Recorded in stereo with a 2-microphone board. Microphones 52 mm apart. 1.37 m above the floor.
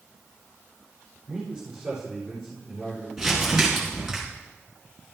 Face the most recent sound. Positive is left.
turn(degrees=-5)  # may be behind; listen again after turning